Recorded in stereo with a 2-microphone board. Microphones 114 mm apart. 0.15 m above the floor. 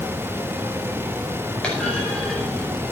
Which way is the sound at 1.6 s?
10° left (ahead or behind).